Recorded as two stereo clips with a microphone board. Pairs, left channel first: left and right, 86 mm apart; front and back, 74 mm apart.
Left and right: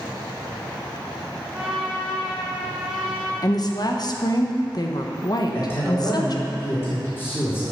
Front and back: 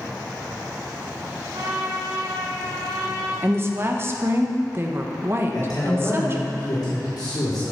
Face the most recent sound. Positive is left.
turn(degrees=25)